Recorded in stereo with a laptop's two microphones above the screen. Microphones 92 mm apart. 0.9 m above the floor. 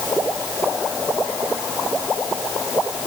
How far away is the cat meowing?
I don't hear a cat meowing.